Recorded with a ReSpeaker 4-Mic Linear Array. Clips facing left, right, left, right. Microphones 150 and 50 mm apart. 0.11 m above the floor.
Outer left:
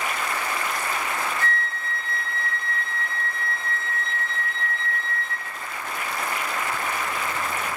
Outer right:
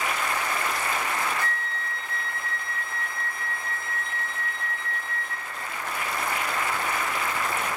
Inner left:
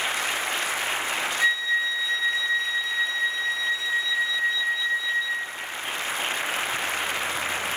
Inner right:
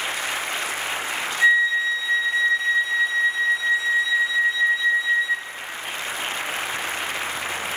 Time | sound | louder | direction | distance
1.4 | a flute | outer left 3 dB, inner right 7 dB | 15° right (ahead or behind) | 1.3 m